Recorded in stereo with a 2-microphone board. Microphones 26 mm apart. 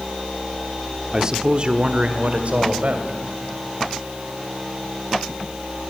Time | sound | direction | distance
1.1 | a man speaking | 25° right (ahead or behind) | 1.0 m